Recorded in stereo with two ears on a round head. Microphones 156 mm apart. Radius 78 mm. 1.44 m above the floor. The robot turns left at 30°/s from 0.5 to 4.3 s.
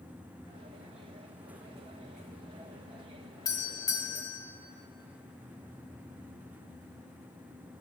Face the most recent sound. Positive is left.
turn(degrees=15)  # may be behind; listen again after turning